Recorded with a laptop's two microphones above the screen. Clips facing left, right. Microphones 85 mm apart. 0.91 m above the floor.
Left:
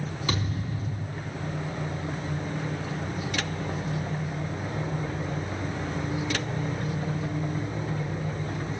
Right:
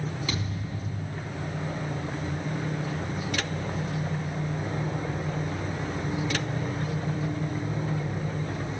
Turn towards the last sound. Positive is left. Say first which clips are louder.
# left 2 dB
turn(degrees=40)  # may be behind; listen again after turning